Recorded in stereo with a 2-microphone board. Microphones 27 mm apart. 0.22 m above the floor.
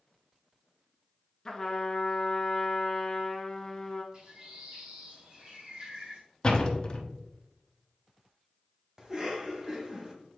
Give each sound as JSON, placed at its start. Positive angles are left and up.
{"t": 1.4, "sound": "a trumpet", "side_deg": 20, "distance_m": 1.2}
{"t": 4.1, "sound": "a bird", "side_deg": -35, "distance_m": 2.0}
{"t": 6.4, "sound": "a door slam", "side_deg": 30, "distance_m": 1.0}
{"t": 9.0, "sound": "a cough", "side_deg": -20, "distance_m": 1.4}